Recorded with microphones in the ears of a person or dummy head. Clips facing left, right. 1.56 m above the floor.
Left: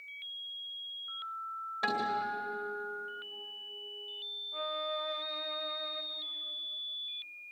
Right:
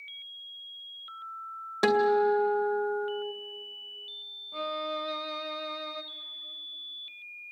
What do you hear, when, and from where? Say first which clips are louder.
1.8 s a guitar: right 13 dB; 60° right (ahead or behind), 1.9 m
4.5 s a violin: right 4 dB; 50° right (ahead or behind), 1.1 m